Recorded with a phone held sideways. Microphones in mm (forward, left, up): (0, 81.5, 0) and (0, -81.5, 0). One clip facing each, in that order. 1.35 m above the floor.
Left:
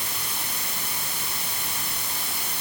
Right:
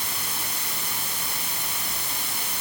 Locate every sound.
Only background noise.